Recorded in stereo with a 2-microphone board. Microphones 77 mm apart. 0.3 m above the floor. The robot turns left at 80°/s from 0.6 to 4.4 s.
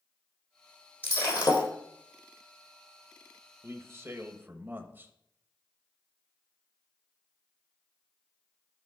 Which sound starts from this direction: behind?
Breaking glass, at 1.0 s.